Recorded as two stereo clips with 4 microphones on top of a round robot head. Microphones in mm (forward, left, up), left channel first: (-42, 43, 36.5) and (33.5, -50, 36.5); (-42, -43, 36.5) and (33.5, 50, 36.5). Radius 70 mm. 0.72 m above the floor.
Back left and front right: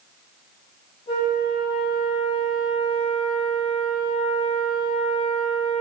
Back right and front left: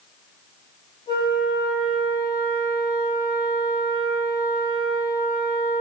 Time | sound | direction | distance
1.1 | a flute | 175° left | 3.5 m